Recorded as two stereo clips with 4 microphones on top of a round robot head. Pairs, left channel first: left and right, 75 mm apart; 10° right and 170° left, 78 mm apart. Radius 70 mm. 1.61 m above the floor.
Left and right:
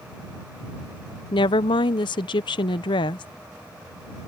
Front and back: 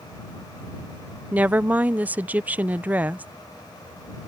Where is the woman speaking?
100° left.